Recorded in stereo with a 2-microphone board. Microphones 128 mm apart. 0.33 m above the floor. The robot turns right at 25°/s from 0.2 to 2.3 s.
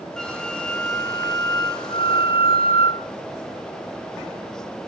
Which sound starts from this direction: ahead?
A flute, at 0.2 s.